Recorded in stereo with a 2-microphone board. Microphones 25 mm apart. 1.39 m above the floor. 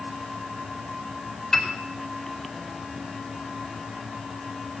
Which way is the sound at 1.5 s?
15° left (ahead or behind).